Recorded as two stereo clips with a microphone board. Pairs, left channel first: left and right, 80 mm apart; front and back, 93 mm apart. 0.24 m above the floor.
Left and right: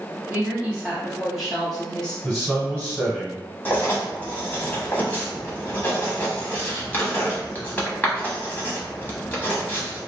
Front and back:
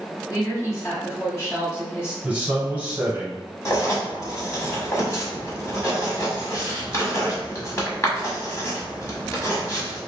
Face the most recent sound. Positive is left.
turn(degrees=35)